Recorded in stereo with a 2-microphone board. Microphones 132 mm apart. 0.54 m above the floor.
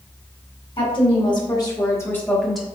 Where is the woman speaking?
40° left (ahead or behind), 1.8 m; by 2.7 s 5° right (ahead or behind), 1.0 m.